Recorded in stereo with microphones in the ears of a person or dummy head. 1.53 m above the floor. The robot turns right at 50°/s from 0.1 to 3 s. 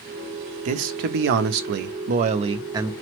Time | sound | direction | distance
0.7 | a man speaking | 135° right | 0.5 m